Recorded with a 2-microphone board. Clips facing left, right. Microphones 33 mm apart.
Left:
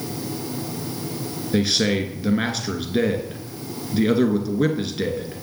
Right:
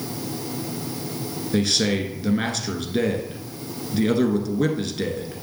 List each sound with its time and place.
1.5 s a man speaking: 10° left (ahead or behind), 1.2 m